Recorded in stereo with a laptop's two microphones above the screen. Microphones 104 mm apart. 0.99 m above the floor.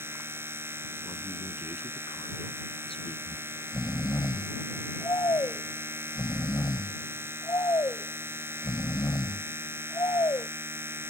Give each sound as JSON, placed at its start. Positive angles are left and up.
{"t": 0.0, "sound": "a machine running", "side_deg": -20}
{"t": 1.0, "sound": "a man speaking", "side_deg": 65}
{"t": 3.3, "sound": "snoring", "side_deg": 40}